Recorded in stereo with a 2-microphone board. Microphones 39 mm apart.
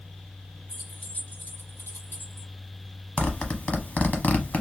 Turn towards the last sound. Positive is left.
turn(degrees=40)  # may be behind; listen again after turning